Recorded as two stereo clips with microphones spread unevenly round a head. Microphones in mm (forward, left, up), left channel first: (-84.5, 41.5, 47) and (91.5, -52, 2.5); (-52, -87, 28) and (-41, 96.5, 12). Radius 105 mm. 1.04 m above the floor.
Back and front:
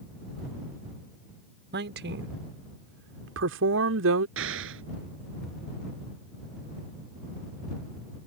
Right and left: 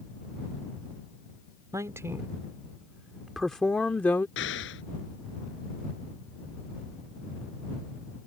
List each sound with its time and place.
1.7 s a woman speaking: 10° left; by 4.3 s 10° right
4.4 s an explosion: 55° right